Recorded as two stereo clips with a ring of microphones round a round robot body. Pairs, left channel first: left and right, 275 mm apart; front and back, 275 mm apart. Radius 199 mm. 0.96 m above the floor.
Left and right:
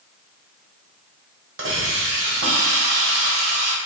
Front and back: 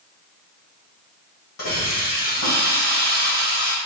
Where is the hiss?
50° right, 1.2 m.